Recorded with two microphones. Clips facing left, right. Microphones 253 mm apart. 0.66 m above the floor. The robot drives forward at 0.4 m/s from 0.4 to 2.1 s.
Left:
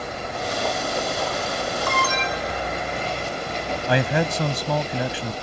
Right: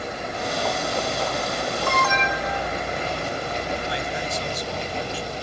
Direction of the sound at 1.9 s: 35° left (ahead or behind).